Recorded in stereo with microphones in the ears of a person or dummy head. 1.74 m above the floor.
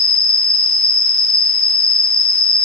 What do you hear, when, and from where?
0.0 s an insect: centre (ahead or behind), 1.4 m